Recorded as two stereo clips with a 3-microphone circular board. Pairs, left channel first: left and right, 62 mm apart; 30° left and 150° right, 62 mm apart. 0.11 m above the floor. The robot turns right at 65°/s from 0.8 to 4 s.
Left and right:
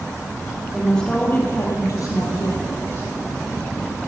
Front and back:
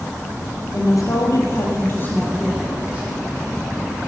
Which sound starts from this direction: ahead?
A woman speaking, at 0.7 s.